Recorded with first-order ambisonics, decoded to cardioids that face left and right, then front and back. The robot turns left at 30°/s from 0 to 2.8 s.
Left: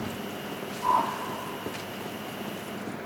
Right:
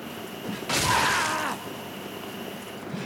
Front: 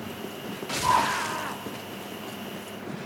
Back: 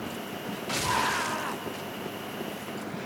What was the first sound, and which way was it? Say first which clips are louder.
A whoosh: right 1 dB, front 5 dB; 25° left.